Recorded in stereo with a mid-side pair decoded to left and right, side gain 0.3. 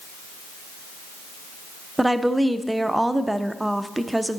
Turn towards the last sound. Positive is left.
turn(degrees=-15)